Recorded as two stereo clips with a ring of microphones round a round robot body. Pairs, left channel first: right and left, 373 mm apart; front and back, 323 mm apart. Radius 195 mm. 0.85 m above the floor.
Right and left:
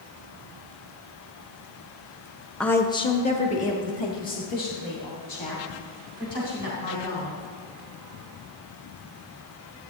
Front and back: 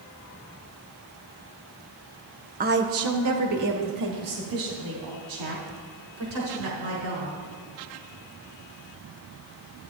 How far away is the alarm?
I don't hear an alarm.